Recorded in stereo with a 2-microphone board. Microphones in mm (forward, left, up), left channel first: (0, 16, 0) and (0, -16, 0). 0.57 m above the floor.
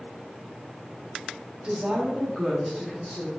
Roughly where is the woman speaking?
Right.